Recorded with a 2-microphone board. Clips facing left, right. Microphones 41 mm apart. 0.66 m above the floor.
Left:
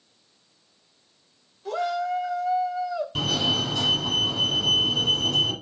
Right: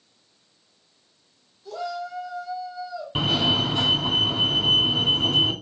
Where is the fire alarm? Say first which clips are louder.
Right 4 dB; 30° right (ahead or behind), 2.5 m.